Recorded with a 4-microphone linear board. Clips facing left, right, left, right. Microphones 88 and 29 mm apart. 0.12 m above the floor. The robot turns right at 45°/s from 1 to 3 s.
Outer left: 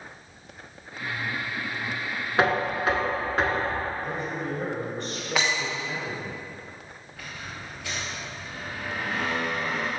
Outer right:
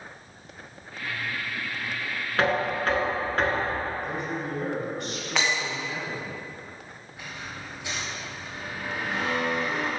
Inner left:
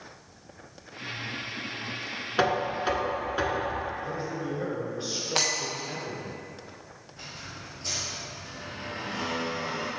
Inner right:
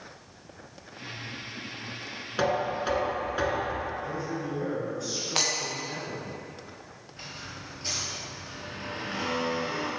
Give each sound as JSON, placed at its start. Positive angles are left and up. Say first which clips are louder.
{"t": 2.4, "sound": "knocking", "louder": "outer left 1 dB, inner left 1 dB", "side_deg": 20, "distance_m": 0.9}
{"t": 4.0, "sound": "a man speaking", "louder": "even, even", "side_deg": 35, "distance_m": 1.9}
{"t": 5.3, "sound": "breaking glass", "louder": "even, inner left 1 dB", "side_deg": 5, "distance_m": 1.1}
{"t": 7.1, "sound": "a squeak", "louder": "even, inner right 1 dB", "side_deg": -20, "distance_m": 2.0}